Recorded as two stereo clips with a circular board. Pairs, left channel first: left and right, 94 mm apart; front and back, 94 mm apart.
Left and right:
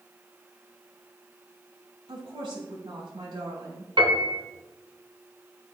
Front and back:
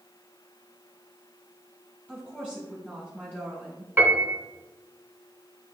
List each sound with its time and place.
2.1 s a woman speaking: 70° right, 2 m
4.0 s a piano: 110° right, 1.9 m